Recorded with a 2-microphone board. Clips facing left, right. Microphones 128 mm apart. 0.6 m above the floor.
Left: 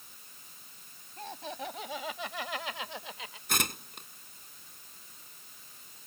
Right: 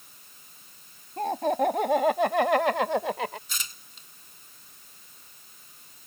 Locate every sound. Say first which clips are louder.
1.2 s laughter: right 15 dB; 55° right (ahead or behind); by 3.4 s 70° right (ahead or behind)
3.5 s tearing paper: left 9 dB; 65° left (ahead or behind)